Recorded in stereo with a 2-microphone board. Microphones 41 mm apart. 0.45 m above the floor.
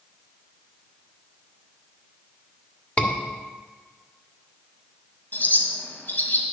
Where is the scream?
35° left (ahead or behind), 1.5 m.